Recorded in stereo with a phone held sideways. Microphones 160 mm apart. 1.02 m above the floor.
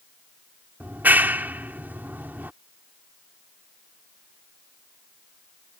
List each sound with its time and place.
0.8 s a clap: 10° right (ahead or behind)